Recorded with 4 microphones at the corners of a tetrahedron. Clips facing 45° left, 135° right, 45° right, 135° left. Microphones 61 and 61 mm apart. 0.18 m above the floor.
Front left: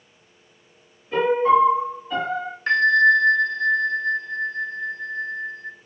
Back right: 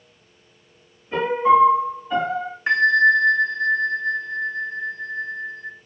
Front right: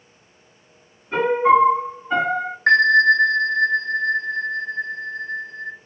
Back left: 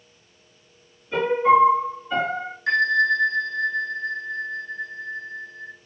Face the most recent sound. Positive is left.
turn(degrees=-60)